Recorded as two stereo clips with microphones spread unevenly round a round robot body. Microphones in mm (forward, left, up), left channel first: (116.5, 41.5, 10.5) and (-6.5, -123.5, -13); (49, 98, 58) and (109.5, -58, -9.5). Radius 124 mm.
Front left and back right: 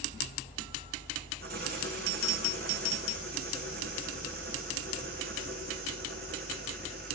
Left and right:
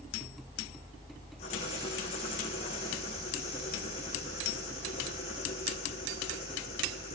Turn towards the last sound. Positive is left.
turn(degrees=175)